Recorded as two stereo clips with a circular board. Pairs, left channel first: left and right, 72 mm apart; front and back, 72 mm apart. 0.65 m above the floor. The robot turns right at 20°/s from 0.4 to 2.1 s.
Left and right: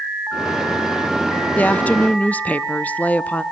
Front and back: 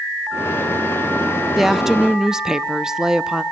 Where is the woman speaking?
95° left, 0.6 m; by 3.4 s 105° left, 0.6 m.